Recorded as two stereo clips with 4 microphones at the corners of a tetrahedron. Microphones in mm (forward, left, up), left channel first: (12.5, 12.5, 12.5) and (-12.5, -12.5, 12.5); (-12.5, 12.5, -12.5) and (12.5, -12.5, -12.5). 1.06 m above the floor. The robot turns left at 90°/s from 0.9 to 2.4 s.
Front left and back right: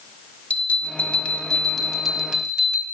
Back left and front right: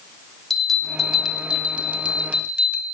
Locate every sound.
0.5 s a bell: 50° left, 0.9 m; by 2.8 s 85° right, 0.9 m